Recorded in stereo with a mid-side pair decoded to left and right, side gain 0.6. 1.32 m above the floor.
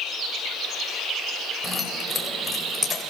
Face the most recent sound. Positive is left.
turn(degrees=20)